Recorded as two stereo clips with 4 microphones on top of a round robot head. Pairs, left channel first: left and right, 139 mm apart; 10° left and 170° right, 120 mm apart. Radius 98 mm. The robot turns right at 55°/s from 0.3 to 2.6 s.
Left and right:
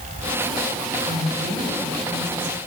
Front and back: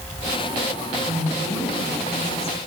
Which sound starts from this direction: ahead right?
A woman speaking, at 1.0 s.